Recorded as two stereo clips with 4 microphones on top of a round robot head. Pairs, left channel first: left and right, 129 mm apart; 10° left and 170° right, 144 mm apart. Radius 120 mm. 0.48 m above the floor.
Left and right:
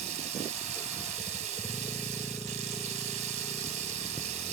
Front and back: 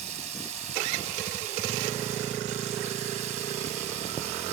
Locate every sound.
0.0 s running water: 125° right